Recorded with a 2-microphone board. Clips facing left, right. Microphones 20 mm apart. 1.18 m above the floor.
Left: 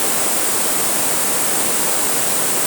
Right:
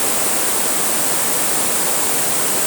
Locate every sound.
Only background noise.